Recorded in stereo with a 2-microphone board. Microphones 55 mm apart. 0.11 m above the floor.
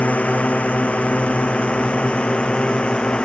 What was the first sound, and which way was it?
A drone, 25° left (ahead or behind).